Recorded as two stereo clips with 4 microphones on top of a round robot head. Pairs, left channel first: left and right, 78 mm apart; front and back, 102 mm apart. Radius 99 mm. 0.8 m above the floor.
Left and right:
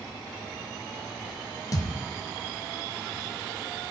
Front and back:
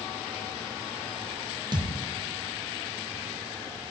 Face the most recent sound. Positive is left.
turn(degrees=135)